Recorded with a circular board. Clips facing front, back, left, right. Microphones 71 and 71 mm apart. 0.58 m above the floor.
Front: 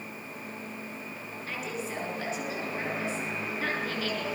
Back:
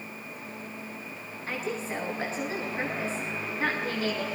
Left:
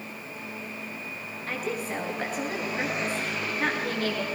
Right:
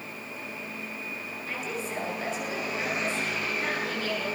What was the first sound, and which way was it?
A woman speaking, 125° left.